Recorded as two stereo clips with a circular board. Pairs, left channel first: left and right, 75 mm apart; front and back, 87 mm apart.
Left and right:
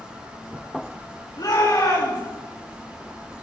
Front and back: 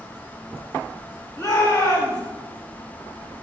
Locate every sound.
1.4 s a shout: 65° left, 8 m